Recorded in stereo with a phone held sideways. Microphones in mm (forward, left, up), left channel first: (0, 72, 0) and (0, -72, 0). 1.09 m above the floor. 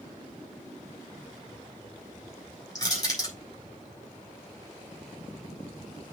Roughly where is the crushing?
Left.